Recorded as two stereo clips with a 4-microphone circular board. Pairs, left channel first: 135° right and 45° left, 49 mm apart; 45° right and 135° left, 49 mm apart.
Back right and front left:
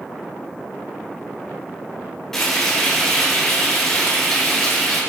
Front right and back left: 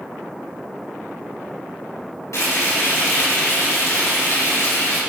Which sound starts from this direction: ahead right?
Frying, at 2.3 s.